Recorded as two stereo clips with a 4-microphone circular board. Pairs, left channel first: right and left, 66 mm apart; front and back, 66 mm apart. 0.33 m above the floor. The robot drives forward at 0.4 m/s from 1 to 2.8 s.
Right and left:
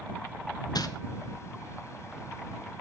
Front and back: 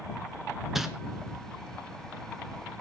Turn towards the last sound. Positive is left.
turn(degrees=-120)